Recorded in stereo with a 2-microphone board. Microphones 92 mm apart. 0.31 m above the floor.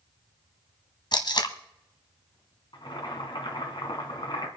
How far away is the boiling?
About 2.5 m.